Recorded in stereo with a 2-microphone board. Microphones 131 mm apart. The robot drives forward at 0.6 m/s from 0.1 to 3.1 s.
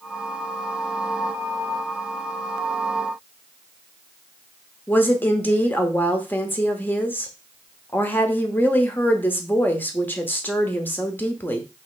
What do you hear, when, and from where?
4.9 s a woman speaking: 15° left (ahead or behind), 0.9 m